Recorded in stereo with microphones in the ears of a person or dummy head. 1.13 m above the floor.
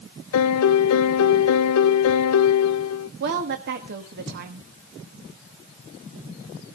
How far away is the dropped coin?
No dropped coin in this recording.